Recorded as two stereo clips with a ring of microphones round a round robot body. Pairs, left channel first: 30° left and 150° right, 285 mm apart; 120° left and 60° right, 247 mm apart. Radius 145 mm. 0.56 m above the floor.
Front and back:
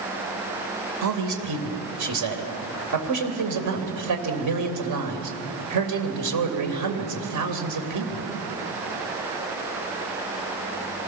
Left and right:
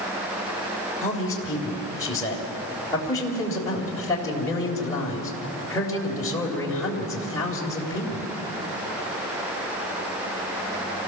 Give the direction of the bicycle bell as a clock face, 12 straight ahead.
I don't hear a bicycle bell.